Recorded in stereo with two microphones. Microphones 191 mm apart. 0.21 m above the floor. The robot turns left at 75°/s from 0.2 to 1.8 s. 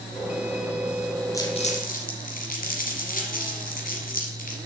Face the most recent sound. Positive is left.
turn(degrees=45)  # may be behind; listen again after turning